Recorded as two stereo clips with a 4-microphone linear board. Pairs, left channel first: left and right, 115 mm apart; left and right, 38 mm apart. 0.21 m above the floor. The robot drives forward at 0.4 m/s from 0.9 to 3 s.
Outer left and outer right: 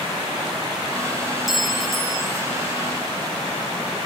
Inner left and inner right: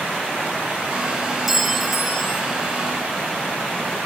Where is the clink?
5° right (ahead or behind), 0.6 m; by 2.4 s centre (ahead or behind), 0.8 m.